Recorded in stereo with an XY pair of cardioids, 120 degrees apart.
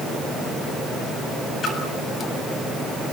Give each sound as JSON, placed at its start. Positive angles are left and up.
{"t": 1.6, "sound": "a splash", "azimuth_deg": 45, "distance_m": 7.5}